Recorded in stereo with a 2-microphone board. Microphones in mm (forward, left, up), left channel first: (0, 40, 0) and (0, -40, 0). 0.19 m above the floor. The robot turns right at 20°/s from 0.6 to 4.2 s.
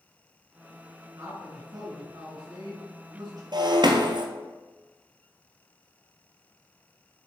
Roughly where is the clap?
I don't hear a clap.